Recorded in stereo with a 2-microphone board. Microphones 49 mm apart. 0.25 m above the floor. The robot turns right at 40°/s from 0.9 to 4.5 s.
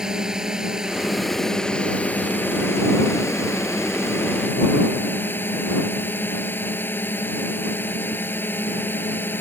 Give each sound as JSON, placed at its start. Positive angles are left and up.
{"t": 0.0, "sound": "a drone", "azimuth_deg": -15}